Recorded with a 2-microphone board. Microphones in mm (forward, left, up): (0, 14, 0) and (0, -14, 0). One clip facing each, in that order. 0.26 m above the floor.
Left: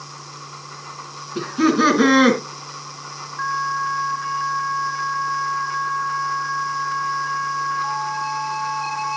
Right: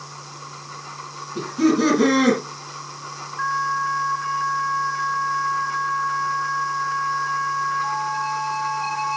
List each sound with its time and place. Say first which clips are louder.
1.4 s laughter: left 2 dB; 35° left (ahead or behind), 3 m